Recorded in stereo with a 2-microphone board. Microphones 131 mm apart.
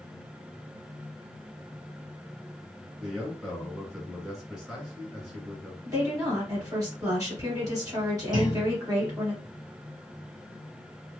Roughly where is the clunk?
Right.